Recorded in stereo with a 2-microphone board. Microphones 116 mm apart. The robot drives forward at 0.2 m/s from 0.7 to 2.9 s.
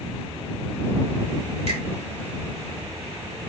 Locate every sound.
1.7 s a finger snap: 60° right (ahead or behind), 1.7 m